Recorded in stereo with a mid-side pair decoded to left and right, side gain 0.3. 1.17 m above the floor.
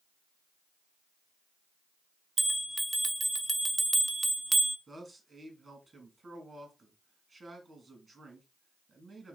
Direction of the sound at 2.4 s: 25° right.